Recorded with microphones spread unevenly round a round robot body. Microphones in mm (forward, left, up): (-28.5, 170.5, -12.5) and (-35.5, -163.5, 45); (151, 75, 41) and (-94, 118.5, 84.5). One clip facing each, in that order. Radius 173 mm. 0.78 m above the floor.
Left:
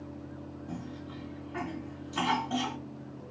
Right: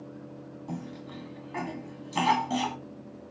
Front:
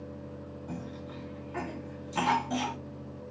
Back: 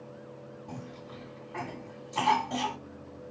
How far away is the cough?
About 1.6 m.